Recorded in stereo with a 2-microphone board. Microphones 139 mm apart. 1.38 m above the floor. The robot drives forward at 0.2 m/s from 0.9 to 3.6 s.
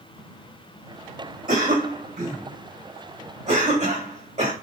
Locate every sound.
1.5 s a cough: 65° right (ahead or behind), 1.4 m; by 4.5 s 50° right (ahead or behind), 1.7 m